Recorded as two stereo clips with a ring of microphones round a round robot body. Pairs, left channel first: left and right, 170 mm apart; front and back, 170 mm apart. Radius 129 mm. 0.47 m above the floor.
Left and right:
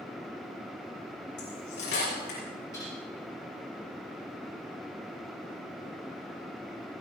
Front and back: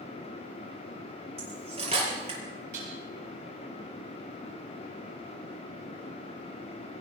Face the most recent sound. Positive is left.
turn(degrees=165)